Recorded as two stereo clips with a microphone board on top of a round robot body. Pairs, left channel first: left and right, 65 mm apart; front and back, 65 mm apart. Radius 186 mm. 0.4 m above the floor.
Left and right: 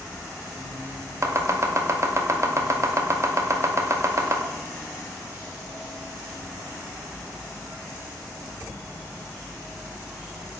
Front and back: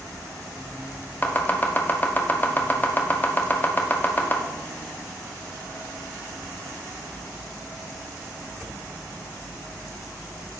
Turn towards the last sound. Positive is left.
turn(degrees=-60)